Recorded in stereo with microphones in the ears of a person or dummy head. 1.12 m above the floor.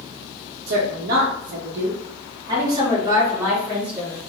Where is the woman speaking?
65° right (ahead or behind), 0.8 m; by 4.2 s 10° right (ahead or behind), 2 m.